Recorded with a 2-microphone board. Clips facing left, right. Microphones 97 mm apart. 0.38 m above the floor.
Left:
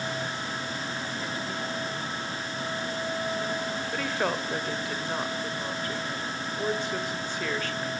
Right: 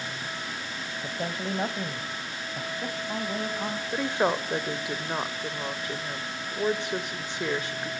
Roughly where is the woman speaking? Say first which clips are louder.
Right 4 dB; centre.